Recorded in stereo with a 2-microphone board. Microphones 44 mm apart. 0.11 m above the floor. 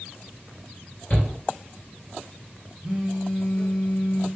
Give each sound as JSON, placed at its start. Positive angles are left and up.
{"t": 1.1, "sound": "a shout", "side_deg": 35, "distance_m": 2.0}
{"t": 2.8, "sound": "a phone buzzing", "side_deg": -10, "distance_m": 1.7}